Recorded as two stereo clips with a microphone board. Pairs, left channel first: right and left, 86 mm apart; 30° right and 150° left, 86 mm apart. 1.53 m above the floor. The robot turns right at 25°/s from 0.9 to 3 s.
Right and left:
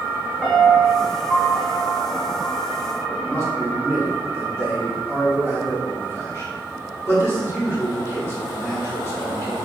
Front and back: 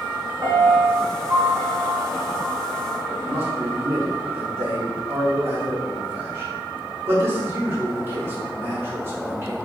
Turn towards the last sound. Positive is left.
turn(degrees=-150)